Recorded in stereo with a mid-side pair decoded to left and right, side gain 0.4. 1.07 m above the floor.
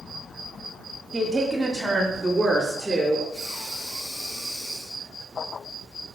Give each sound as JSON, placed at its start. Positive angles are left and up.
{"t": 1.1, "sound": "a woman speaking", "azimuth_deg": -10, "distance_m": 1.4}
{"t": 3.3, "sound": "breathing", "azimuth_deg": 65, "distance_m": 3.0}